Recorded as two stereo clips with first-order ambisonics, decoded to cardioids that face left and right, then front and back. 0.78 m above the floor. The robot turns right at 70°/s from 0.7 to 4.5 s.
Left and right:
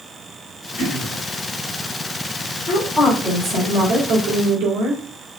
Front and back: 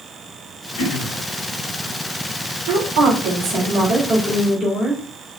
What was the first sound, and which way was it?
Throat clearing, 15° left.